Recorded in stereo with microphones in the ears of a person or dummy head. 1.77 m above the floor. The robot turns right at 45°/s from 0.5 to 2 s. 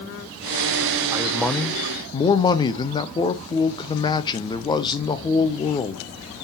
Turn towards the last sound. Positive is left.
turn(degrees=25)